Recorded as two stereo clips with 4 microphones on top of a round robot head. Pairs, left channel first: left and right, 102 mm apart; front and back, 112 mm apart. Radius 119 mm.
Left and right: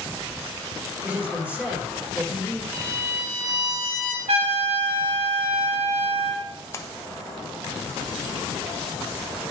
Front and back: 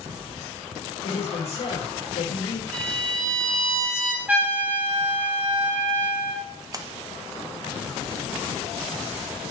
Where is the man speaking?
15° right, 3 m.